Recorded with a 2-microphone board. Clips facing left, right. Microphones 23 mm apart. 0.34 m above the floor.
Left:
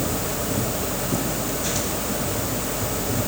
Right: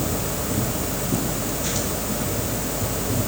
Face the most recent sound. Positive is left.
No sound to turn to.